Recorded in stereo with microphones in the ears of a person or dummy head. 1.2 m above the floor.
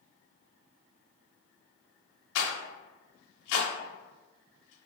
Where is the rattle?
75° left (ahead or behind), 0.7 m.